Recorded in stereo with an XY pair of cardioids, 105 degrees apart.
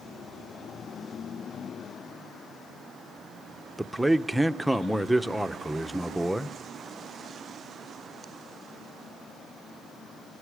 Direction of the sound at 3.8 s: 5° right.